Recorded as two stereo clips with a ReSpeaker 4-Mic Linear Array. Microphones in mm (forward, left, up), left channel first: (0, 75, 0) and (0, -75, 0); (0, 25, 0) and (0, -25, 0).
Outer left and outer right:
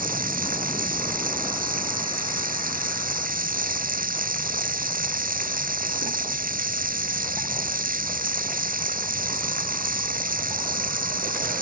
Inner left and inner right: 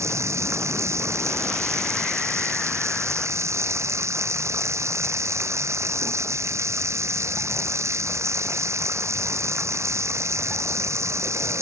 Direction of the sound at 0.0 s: 70° right (ahead or behind).